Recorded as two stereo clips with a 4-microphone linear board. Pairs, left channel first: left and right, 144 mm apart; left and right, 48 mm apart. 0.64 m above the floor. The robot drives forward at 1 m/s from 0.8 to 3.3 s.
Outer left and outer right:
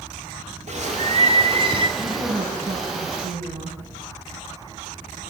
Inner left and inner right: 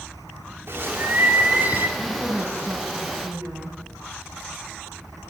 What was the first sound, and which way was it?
A bird, 50° right (ahead or behind).